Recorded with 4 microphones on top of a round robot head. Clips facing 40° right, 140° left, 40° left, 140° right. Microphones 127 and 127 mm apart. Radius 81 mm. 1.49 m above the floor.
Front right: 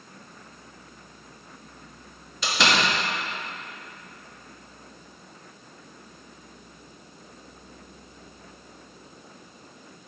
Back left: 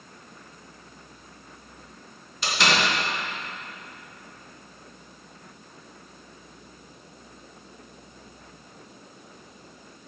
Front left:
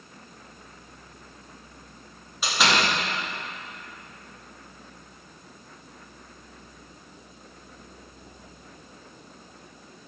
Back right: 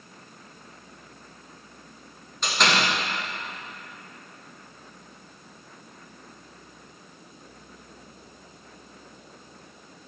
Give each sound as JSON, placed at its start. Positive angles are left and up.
{"t": 2.4, "sound": "a door slam", "azimuth_deg": -45, "distance_m": 2.0}